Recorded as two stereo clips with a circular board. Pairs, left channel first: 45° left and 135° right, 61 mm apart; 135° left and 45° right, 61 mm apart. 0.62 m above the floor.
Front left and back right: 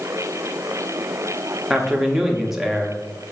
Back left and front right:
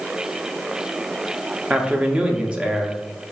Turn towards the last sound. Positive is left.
turn(degrees=-65)